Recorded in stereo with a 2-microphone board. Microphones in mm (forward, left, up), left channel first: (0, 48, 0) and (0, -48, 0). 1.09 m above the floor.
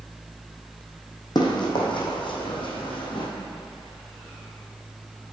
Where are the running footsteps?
45° left (ahead or behind), 2.5 m; by 3.3 s 55° left (ahead or behind), 2.5 m.